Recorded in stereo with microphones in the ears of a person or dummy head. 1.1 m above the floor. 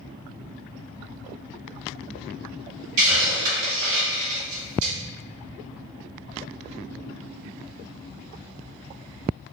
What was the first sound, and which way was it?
A hiss, 50° right (ahead or behind).